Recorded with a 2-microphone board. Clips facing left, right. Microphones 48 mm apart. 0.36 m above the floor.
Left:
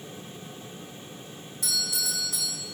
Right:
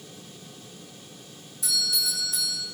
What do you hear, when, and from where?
1.6 s a doorbell: 65° left (ahead or behind), 5 m